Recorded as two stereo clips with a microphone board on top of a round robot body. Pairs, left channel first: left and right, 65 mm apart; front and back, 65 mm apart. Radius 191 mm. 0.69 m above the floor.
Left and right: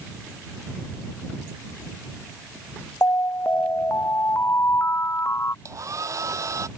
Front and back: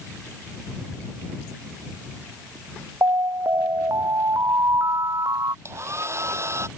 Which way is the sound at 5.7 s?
135° right.